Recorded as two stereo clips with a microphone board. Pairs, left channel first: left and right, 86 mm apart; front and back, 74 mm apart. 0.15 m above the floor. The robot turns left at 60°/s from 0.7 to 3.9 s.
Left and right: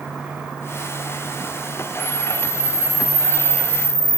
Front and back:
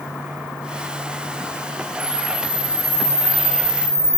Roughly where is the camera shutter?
Behind left.